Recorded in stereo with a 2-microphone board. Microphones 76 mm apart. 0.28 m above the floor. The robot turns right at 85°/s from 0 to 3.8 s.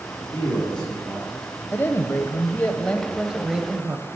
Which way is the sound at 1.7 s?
60° left.